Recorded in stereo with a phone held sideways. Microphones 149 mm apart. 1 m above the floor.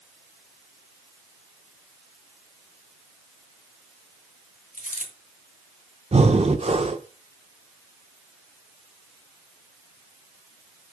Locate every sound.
4.7 s a dropped coin: 65° left (ahead or behind), 2 m
6.1 s breathing: 45° right (ahead or behind), 0.8 m